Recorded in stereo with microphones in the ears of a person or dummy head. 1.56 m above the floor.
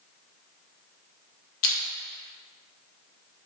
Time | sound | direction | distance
1.6 | crushing | 50° left (ahead or behind) | 0.6 m